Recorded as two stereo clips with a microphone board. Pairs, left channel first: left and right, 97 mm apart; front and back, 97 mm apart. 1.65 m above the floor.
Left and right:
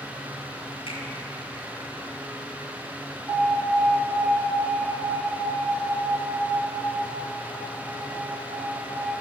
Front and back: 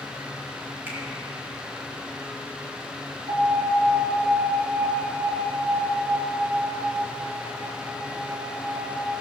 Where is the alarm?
Straight behind, 5 m.